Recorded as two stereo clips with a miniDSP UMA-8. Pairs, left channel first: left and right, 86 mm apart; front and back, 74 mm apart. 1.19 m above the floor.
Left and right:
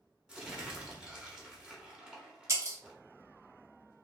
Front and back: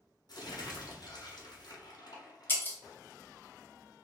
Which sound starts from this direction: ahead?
Crumpling, at 0.3 s.